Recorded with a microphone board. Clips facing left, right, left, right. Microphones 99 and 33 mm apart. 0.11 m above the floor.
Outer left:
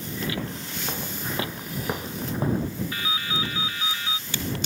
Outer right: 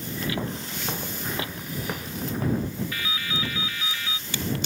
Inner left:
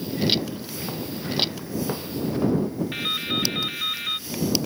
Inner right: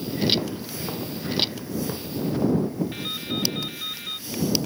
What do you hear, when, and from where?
0.4 s footsteps: 20° right (ahead or behind); by 2.8 s 30° left (ahead or behind)
2.9 s dripping: 30° left (ahead or behind)